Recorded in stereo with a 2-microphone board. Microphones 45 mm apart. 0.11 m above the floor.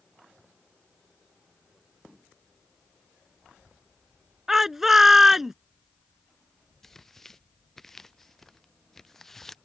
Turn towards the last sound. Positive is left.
turn(degrees=5)  # may be behind; listen again after turning